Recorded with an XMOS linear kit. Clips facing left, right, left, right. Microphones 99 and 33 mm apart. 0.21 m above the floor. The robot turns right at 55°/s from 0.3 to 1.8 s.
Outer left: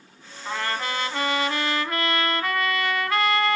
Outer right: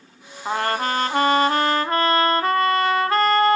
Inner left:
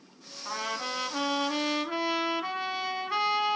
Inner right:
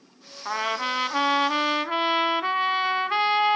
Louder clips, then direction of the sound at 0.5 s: Outer right 6 dB, inner right 7 dB; 125° right.